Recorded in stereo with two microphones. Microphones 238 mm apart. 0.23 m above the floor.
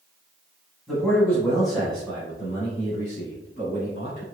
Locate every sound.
0.9 s a man speaking: centre (ahead or behind), 1.4 m; by 4.2 s 35° left (ahead or behind), 3 m